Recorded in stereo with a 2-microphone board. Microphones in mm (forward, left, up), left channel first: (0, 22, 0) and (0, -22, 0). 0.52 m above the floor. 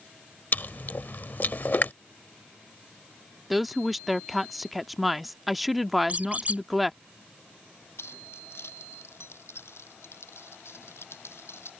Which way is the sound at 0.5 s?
50° left (ahead or behind).